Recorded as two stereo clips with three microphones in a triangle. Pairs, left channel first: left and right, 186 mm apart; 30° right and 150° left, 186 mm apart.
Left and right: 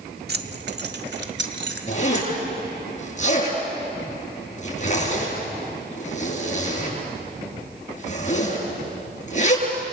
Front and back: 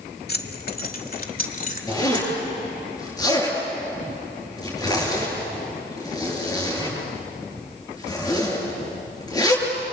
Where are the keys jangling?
60° right, 1.6 m; by 2.4 s 75° right, 3 m.